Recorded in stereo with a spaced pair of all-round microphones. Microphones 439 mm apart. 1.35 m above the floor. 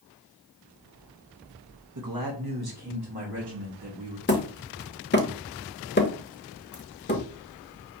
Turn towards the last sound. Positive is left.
turn(degrees=25)  # may be behind; listen again after turning